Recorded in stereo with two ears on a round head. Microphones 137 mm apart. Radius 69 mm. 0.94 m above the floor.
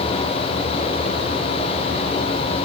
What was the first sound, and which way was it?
Only background noise.